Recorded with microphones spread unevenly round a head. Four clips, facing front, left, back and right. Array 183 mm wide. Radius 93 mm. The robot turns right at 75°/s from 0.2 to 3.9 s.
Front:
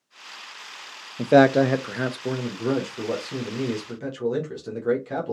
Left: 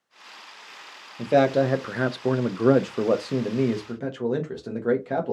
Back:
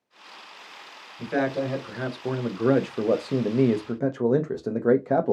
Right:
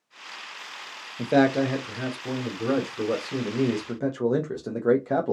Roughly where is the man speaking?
Ahead.